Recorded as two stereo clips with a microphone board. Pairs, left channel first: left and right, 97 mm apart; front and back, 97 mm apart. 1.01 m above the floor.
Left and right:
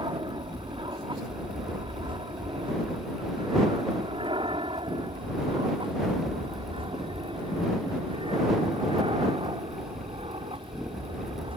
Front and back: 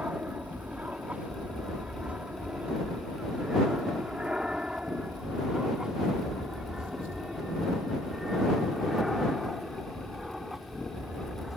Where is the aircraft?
110° right; by 11.6 s 90° right.